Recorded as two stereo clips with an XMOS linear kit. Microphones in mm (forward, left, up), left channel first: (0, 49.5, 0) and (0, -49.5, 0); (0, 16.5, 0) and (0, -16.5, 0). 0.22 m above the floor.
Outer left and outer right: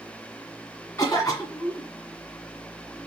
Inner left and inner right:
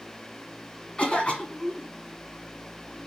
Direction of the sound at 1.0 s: 35° left (ahead or behind).